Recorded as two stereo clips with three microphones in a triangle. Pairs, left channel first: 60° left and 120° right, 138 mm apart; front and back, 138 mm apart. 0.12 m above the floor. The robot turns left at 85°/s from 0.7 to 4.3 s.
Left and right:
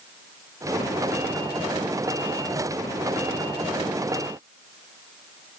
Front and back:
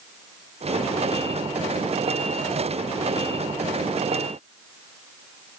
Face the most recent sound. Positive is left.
No sound to turn to.